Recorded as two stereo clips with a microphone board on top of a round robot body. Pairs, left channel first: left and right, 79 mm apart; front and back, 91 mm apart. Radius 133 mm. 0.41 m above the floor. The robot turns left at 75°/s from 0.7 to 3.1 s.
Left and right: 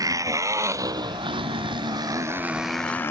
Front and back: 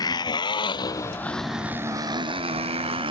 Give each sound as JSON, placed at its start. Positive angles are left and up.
{"t": 0.0, "sound": "a motorcycle", "azimuth_deg": -45}